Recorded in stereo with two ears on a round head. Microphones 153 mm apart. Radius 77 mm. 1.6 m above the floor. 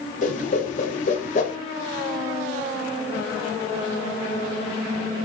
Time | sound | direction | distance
0.2 | a whoosh | 45° left (ahead or behind) | 0.7 m